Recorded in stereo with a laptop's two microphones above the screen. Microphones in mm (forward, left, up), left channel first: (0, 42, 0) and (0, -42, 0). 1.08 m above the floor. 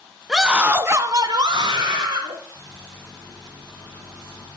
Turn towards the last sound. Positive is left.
turn(degrees=-15)  # may be behind; listen again after turning